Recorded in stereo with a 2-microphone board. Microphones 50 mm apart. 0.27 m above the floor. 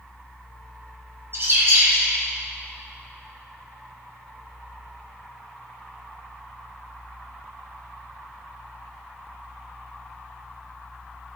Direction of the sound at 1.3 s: 55° right (ahead or behind).